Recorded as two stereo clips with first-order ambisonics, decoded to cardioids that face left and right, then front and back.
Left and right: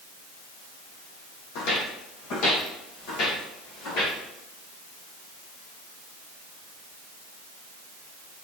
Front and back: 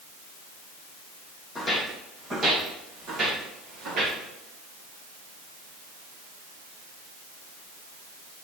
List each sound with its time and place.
1.6 s footsteps: 85° left, 2 m; by 4.2 s 130° left, 4.5 m